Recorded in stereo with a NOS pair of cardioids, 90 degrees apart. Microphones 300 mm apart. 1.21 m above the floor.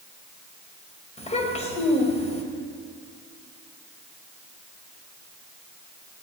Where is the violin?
I don't hear a violin.